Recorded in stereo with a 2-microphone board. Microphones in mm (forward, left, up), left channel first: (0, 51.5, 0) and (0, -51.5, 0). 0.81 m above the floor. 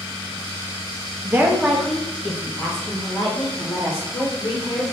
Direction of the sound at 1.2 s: 25° right (ahead or behind).